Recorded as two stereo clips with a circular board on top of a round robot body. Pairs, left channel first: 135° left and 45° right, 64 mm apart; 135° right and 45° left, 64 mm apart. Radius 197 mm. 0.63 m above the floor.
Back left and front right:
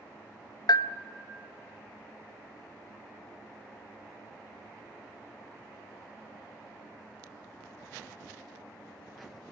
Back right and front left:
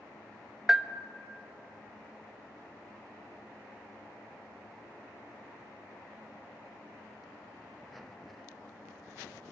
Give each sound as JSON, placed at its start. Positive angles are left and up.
{"t": 0.7, "sound": "a bell", "azimuth_deg": 130, "distance_m": 0.9}